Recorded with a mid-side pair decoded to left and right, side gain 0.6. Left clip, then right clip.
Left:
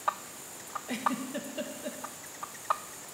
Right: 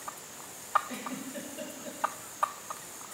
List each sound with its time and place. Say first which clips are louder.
0.9 s a giggle: left 7 dB; 40° left, 1.4 m